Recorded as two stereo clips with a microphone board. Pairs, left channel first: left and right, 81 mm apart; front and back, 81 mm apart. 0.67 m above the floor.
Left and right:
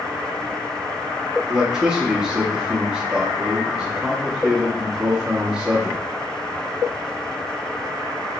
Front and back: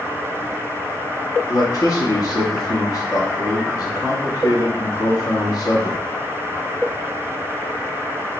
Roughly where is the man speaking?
Ahead.